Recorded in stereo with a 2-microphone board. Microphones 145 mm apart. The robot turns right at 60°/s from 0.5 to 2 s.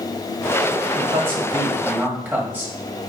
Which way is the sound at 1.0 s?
40° right (ahead or behind).